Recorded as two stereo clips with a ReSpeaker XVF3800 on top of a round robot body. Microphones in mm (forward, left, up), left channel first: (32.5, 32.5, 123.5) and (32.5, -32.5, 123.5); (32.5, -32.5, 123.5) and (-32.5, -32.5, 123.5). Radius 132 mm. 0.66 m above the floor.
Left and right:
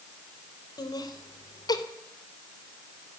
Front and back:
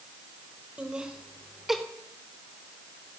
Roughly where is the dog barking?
No dog barking in this recording.